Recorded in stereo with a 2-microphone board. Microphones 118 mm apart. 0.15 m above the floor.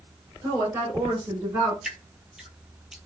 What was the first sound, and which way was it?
A woman speaking, 20° right (ahead or behind).